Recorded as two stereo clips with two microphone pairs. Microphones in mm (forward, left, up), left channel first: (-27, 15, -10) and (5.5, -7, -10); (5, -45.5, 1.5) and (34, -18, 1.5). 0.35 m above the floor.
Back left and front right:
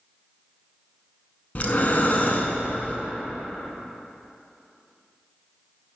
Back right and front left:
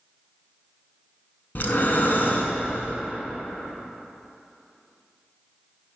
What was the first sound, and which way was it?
Breathing, 170° right.